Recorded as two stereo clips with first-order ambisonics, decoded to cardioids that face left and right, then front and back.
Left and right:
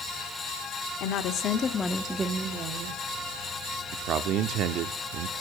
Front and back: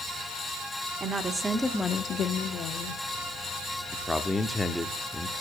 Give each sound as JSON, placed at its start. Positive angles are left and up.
{"t": 1.0, "sound": "a woman speaking", "azimuth_deg": 110, "distance_m": 1.3}
{"t": 3.9, "sound": "a man speaking", "azimuth_deg": -85, "distance_m": 0.9}